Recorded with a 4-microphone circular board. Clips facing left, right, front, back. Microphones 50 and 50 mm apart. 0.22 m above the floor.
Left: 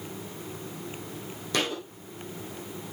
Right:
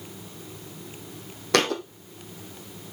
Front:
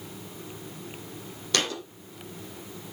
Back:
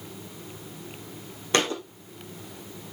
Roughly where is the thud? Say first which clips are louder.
Right 7 dB, back 4 dB; behind right.